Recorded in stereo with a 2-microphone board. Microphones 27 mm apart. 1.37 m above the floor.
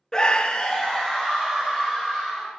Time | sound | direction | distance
0.1 | a scream | 25° left (ahead or behind) | 0.5 m